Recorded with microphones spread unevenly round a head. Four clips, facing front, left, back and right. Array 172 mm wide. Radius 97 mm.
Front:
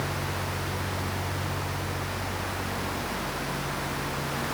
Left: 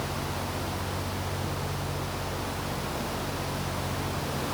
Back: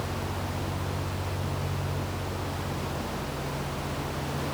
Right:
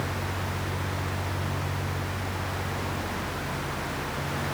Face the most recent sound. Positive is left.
No sound to turn to.